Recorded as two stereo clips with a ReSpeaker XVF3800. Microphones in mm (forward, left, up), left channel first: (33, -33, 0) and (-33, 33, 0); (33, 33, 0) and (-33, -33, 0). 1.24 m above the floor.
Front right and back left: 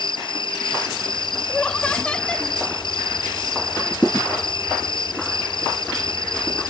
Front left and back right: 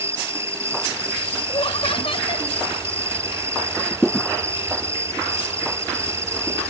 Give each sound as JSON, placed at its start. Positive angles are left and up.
{"t": 0.0, "sound": "an insect", "azimuth_deg": -75}
{"t": 1.5, "sound": "laughter", "azimuth_deg": 35}